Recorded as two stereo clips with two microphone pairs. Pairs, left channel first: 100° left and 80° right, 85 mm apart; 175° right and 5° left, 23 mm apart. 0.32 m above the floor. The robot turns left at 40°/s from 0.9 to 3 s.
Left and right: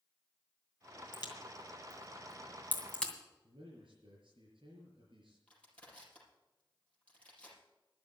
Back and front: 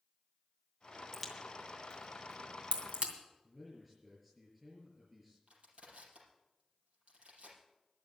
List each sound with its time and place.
1.1 s a crack: 95° left, 2.5 m; by 3.1 s 25° left, 2.5 m
3.4 s a man speaking: 75° right, 6.5 m
5.5 s crushing: 25° left, 5 m